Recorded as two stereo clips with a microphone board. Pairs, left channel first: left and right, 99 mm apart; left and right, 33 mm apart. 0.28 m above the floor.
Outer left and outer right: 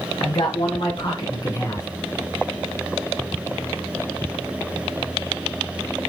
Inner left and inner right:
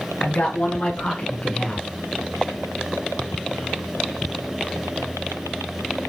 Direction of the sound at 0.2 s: 55° left (ahead or behind).